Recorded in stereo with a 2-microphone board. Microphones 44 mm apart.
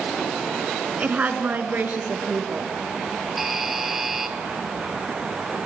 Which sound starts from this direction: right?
A woman speaking, at 1.0 s.